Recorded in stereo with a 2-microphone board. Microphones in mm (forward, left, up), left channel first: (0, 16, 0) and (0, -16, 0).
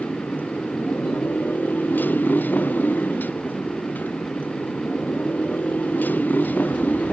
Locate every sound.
0.0 s a motorcycle: 85° left; by 7.1 s 70° left (ahead or behind)